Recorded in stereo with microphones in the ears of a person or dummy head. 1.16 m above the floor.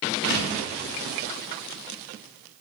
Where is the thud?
65° left (ahead or behind), 1.0 m.